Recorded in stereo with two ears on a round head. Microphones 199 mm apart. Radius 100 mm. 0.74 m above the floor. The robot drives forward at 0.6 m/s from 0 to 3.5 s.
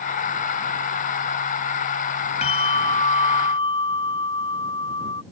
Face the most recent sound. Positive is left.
turn(degrees=25)  # may be behind; listen again after turning